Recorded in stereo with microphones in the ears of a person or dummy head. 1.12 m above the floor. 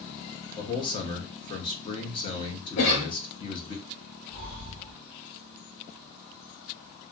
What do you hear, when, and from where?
0.6 s a man speaking: 25° left (ahead or behind), 0.6 m
2.8 s a cough: 65° left (ahead or behind), 1.0 m
4.3 s breathing: 45° left (ahead or behind), 1.3 m